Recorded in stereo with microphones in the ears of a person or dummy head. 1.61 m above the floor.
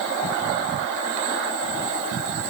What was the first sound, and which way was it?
Only background noise.